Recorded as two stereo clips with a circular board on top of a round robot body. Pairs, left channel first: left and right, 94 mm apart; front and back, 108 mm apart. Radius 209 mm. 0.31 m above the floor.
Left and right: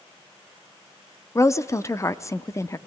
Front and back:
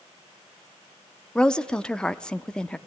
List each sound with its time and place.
1.4 s a woman speaking: 75° left, 1.1 m